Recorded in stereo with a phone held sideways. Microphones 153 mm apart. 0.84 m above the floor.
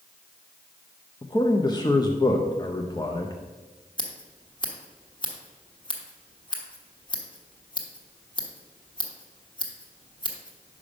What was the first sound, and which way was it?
A man speaking, 25° left (ahead or behind).